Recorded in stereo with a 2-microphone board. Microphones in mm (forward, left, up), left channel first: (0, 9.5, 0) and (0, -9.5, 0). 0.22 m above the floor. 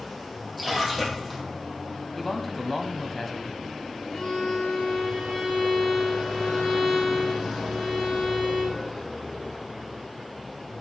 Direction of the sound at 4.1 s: 30° left (ahead or behind).